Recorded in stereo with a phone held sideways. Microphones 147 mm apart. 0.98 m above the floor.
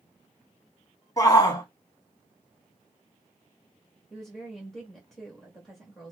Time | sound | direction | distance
1.2 | a shout | 25° left (ahead or behind) | 1.3 m
4.1 | a woman speaking | centre (ahead or behind) | 1.8 m